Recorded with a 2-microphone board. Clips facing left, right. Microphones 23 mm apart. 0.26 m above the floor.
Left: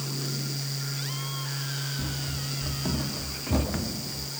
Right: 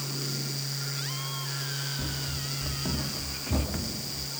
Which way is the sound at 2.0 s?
5° right (ahead or behind).